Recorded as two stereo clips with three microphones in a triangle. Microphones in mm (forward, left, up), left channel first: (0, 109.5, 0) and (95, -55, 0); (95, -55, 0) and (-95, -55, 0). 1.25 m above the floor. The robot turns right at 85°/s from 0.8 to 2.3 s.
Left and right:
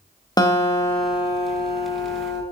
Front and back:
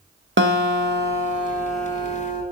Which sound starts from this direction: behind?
A guitar, at 0.4 s.